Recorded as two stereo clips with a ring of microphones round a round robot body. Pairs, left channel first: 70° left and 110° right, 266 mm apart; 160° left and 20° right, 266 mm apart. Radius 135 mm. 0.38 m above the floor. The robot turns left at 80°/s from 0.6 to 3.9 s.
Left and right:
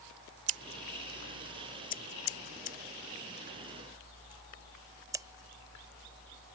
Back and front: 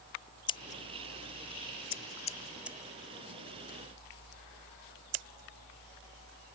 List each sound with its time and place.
0.5 s scissors: 135° right; by 6.5 s 35° right